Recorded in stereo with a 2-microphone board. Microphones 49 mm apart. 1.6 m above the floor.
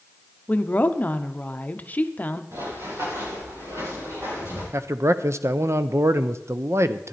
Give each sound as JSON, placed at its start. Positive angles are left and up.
{"t": 0.5, "sound": "a woman speaking", "side_deg": 30, "distance_m": 0.7}
{"t": 2.5, "sound": "running footsteps", "side_deg": -75, "distance_m": 6.0}
{"t": 4.7, "sound": "a man speaking", "side_deg": -60, "distance_m": 0.6}